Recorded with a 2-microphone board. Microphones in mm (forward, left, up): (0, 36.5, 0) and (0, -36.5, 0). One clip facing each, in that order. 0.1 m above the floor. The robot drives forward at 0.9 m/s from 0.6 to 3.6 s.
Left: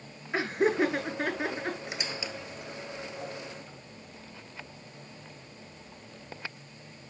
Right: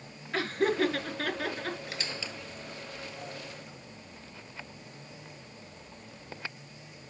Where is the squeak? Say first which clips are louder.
Left 2 dB; 20° left (ahead or behind), 0.8 m; by 3.8 s 10° left (ahead or behind), 2 m.